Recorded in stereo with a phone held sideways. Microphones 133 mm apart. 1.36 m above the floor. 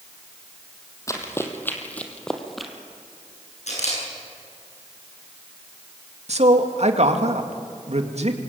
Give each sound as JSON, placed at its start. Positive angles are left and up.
{"t": 1.1, "sound": "running footsteps", "side_deg": 25, "distance_m": 3.0}
{"t": 3.7, "sound": "a camera shutter", "side_deg": 65, "distance_m": 10.0}
{"t": 6.3, "sound": "a man speaking", "side_deg": -60, "distance_m": 2.5}